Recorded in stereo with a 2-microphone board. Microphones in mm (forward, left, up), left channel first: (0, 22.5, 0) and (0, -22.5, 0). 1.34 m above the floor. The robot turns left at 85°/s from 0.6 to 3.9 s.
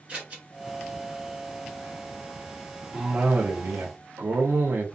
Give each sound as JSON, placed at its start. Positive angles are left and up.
{"t": 0.1, "sound": "scissors", "side_deg": -30, "distance_m": 1.5}
{"t": 2.9, "sound": "a cough", "azimuth_deg": -20, "distance_m": 0.5}